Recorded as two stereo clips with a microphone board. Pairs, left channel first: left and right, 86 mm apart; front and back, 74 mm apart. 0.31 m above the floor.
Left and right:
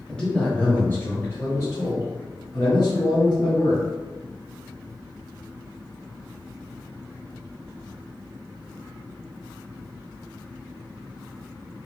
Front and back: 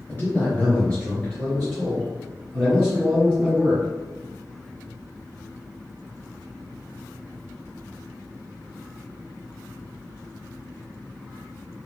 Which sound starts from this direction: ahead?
A man speaking, at 0.1 s.